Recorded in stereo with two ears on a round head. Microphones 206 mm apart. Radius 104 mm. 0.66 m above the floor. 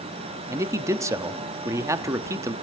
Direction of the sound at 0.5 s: 15° right (ahead or behind).